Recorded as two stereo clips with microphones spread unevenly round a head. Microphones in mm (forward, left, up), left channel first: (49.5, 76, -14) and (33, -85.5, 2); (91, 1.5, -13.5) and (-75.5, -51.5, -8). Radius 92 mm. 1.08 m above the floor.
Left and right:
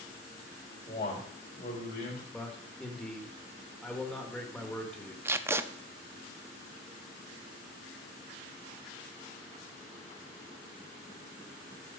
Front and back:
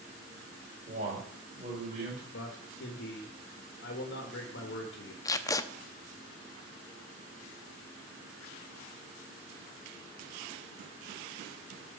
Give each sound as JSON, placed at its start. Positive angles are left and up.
{"t": 0.9, "sound": "a man speaking", "azimuth_deg": 145, "distance_m": 4.0}
{"t": 2.3, "sound": "a man speaking", "azimuth_deg": 0, "distance_m": 1.5}
{"t": 5.2, "sound": "tape being pulled", "azimuth_deg": -40, "distance_m": 0.5}